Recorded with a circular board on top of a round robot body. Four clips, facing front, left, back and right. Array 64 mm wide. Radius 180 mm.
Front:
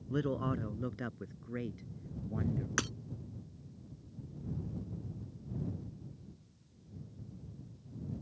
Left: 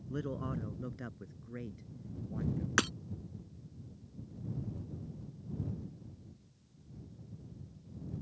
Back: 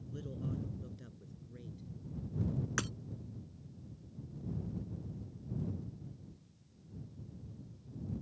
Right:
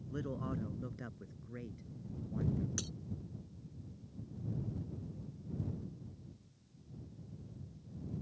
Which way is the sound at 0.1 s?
5° left.